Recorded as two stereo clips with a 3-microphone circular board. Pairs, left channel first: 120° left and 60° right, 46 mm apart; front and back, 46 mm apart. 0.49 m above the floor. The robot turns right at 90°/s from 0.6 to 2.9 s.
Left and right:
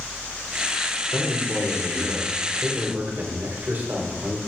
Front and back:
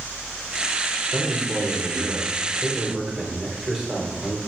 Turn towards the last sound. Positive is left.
turn(degrees=-105)